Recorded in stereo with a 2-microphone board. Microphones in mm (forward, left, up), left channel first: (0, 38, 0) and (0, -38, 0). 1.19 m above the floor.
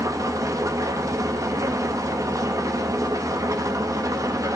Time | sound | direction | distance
0.0 | an engine running | 50° right (ahead or behind) | 1.0 m